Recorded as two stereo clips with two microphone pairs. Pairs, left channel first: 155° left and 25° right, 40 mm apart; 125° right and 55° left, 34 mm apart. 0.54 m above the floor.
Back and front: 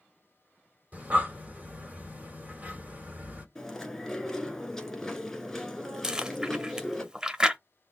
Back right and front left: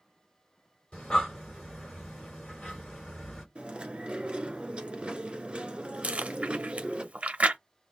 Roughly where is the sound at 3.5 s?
Left.